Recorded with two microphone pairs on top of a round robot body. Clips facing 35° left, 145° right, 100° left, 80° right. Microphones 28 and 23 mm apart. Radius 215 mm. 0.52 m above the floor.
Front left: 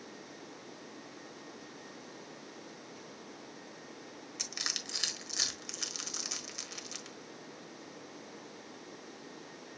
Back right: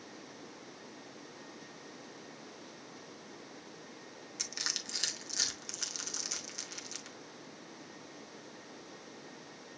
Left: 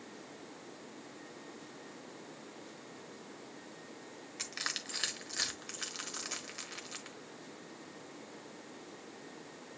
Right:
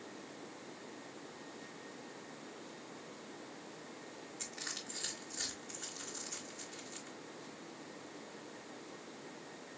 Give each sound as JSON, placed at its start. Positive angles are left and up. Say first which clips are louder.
{"t": 4.4, "sound": "crushing", "louder": "front left 1 dB, left 6 dB", "azimuth_deg": 125, "distance_m": 1.1}